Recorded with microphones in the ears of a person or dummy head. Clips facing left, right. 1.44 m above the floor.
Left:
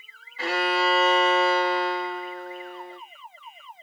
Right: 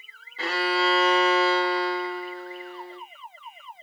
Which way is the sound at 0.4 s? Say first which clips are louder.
Left 1 dB; 25° right (ahead or behind).